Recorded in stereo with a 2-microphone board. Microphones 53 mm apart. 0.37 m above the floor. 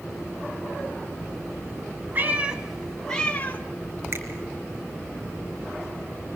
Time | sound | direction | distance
2.1 | a cat meowing | 35° right (ahead or behind) | 1.4 m
4.1 | a finger snap | 50° right (ahead or behind) | 4 m